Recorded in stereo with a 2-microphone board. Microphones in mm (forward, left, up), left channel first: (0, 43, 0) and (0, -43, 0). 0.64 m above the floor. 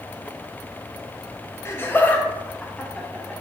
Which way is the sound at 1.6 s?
30° left (ahead or behind).